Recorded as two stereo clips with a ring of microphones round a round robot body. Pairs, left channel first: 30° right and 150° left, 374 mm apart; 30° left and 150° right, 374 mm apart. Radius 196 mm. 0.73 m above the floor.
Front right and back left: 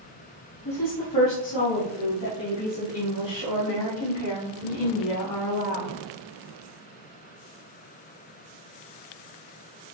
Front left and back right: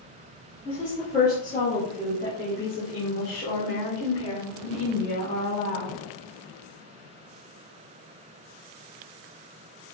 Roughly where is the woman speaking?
Ahead.